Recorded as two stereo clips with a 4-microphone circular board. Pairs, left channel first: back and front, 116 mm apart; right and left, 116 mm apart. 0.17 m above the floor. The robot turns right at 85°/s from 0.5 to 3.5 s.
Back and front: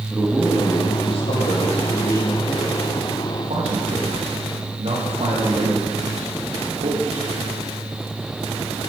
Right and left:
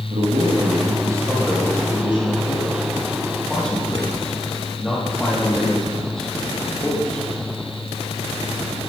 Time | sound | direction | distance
0.1 | a man speaking | 100° left | 6 m